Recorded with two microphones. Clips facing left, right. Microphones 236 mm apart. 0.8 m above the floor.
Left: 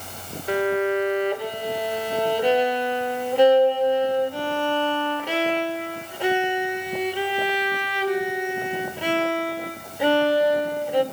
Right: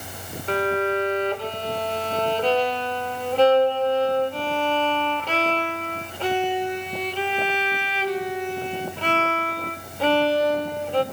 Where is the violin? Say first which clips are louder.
Left 2 dB; 10° left (ahead or behind), 1.7 m.